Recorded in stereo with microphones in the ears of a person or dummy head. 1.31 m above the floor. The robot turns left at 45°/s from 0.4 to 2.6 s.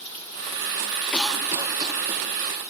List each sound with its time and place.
1.1 s a cough: 5° left (ahead or behind), 1.4 m; by 2.5 s 55° right (ahead or behind), 1.4 m